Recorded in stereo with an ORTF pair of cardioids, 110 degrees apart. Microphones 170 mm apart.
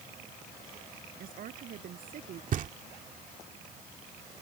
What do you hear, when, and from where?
1.2 s a woman speaking: 60° right
2.5 s knocking: 55° right